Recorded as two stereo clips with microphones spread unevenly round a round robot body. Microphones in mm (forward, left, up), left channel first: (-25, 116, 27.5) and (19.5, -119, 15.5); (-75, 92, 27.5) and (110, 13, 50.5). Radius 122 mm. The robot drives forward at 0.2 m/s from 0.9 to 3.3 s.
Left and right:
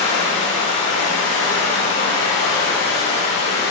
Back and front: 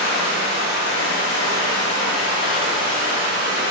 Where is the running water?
145° left, 1.8 m; by 3.7 s 150° left, 2 m.